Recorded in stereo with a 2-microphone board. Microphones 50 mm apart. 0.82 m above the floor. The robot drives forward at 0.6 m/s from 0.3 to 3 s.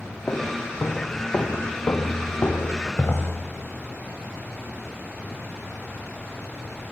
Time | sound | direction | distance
0.3 | footsteps | 75° left (ahead or behind) | 3.5 m